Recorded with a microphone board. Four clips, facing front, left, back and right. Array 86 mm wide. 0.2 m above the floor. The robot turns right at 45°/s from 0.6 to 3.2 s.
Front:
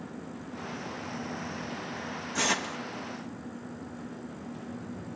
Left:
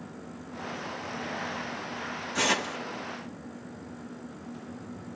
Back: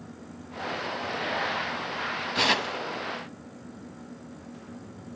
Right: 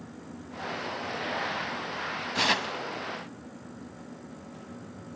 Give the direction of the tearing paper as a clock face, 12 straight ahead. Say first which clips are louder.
Even, back 4 dB; 5 o'clock.